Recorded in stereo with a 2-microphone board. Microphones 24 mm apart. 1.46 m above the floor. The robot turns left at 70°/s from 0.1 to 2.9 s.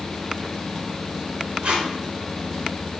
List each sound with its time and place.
1.6 s tape being pulled: 55° right (ahead or behind), 1.8 m; by 1.9 s 50° right (ahead or behind), 1.8 m